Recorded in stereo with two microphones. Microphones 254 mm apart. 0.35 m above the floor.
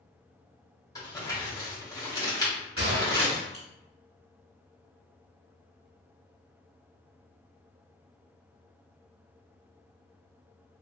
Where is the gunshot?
60° right (ahead or behind), 1.1 m.